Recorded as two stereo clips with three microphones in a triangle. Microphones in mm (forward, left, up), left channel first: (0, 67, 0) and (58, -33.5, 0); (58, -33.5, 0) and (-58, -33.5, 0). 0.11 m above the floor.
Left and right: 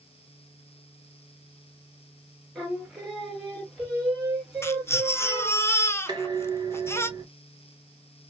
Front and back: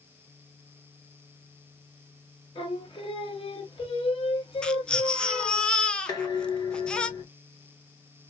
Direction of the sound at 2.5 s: 25° left.